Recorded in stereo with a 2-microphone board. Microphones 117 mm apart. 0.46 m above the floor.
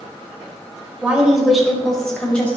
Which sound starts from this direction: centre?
A woman speaking, at 1.0 s.